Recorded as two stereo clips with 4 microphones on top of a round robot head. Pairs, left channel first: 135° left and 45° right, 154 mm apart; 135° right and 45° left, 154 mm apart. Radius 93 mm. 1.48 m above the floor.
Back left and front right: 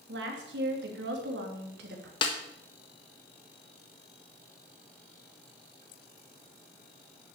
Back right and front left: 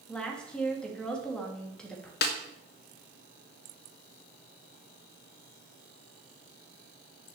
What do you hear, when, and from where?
0.1 s a woman speaking: 50° right, 3 m
2.2 s a snare drum: 165° right, 1.3 m